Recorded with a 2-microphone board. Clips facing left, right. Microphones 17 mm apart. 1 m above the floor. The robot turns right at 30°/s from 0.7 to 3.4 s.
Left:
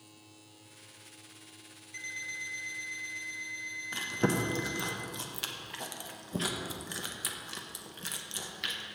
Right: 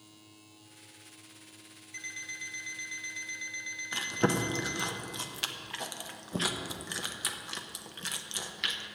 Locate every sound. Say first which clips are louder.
1.9 s an alarm clock: left 2 dB; 175° right, 1.3 m; by 4.9 s 130° right, 1.3 m
3.9 s chewing: right 1 dB; 10° right (ahead or behind), 0.5 m